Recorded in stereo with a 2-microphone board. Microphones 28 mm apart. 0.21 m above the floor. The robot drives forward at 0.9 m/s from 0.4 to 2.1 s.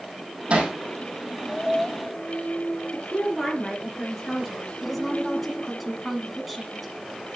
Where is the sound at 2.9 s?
10° left (ahead or behind), 4.5 m.